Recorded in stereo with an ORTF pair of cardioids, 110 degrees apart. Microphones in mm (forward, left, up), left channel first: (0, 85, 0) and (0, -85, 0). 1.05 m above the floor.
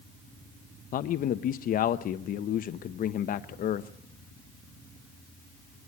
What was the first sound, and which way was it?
A man speaking, 55° left.